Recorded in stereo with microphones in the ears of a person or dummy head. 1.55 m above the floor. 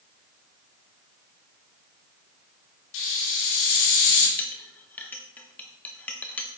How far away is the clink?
About 1.0 m.